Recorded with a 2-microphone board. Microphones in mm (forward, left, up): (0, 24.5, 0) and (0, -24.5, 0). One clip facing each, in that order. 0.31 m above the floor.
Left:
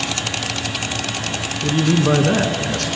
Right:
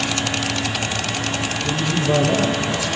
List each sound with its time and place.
1.6 s a man speaking: 65° left (ahead or behind), 4 m